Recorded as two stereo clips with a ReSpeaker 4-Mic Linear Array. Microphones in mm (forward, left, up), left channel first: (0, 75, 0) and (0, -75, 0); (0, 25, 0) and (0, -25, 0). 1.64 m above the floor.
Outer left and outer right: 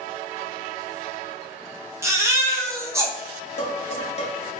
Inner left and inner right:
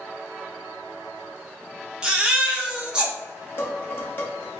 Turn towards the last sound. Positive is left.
turn(degrees=45)  # may be behind; listen again after turning